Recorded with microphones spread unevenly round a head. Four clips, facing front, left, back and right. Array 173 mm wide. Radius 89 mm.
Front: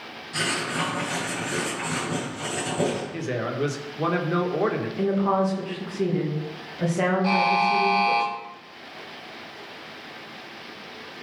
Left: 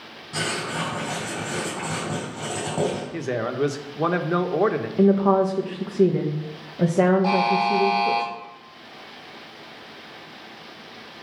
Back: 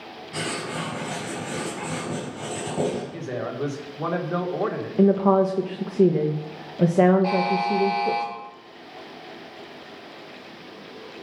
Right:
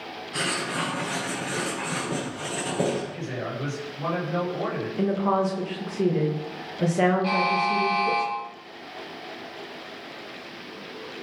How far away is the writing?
About 5 m.